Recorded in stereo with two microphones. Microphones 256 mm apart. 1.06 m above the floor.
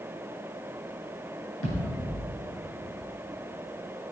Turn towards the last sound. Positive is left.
turn(degrees=60)  # may be behind; listen again after turning